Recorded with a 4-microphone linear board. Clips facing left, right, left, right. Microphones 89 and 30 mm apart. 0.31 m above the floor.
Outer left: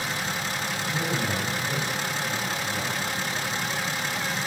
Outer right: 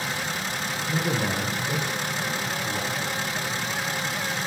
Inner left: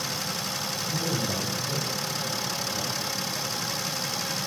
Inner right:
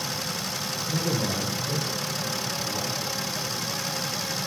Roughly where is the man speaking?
Right.